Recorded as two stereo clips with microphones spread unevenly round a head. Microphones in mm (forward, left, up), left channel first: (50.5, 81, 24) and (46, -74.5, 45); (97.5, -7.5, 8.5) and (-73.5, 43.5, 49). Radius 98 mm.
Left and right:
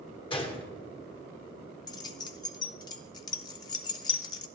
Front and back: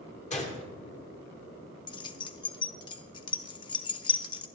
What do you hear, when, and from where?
0.3 s a gunshot: 35° left, 1.8 m
1.9 s keys jangling: 45° left, 0.6 m